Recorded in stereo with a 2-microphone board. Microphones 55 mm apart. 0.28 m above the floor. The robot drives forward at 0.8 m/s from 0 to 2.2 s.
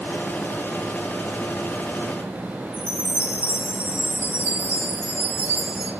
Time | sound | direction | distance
2.7 | a chime | 50° right (ahead or behind) | 5.5 m